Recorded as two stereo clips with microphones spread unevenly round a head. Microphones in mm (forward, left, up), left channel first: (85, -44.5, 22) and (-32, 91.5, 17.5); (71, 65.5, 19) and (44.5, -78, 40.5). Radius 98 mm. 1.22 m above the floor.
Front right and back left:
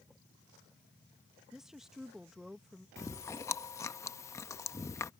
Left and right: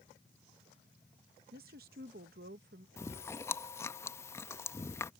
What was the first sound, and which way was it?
A woman speaking, 140° right.